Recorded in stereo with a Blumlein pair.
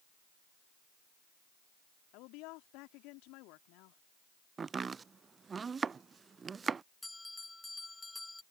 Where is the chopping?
15° right.